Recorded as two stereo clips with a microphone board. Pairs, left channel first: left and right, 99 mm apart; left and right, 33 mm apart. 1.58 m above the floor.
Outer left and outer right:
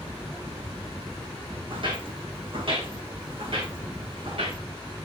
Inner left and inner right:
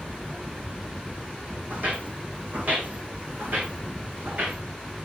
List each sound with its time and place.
1.7 s footsteps: 50° right (ahead or behind), 4 m; by 4.6 s 60° right (ahead or behind), 6 m